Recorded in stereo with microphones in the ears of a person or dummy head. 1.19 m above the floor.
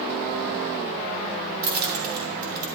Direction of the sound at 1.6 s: 50° right (ahead or behind).